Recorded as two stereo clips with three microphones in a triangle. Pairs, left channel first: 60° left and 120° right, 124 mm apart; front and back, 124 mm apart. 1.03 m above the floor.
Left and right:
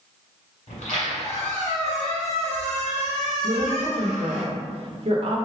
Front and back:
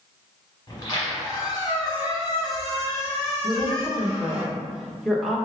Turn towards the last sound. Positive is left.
turn(degrees=-90)